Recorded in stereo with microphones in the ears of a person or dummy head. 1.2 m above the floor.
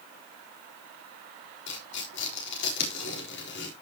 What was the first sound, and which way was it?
Tearing paper, 65° left (ahead or behind).